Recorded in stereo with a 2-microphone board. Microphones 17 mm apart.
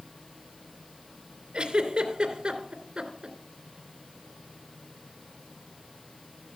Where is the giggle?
70° right (ahead or behind), 2.5 m.